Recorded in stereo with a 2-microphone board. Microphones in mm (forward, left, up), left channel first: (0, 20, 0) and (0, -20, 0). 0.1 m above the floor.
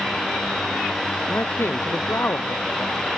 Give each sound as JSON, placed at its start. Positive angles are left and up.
{"t": 1.3, "sound": "a man speaking", "side_deg": 85}